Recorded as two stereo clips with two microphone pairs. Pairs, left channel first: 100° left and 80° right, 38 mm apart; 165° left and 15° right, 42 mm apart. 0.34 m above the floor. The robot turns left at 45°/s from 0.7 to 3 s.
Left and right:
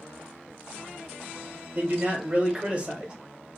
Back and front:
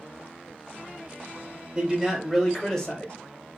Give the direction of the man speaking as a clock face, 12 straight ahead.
3 o'clock.